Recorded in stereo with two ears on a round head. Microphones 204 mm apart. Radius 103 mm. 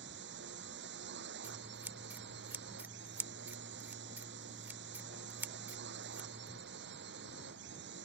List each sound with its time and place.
0.0 s a drone: 55° right (ahead or behind)
1.4 s scissors: 10° right (ahead or behind)